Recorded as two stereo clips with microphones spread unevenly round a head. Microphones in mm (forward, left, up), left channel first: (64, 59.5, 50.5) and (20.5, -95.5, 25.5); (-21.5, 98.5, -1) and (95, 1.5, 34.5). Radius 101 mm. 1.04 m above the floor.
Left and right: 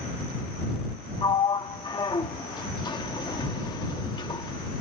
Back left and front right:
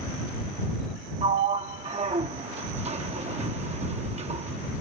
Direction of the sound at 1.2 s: 10° left.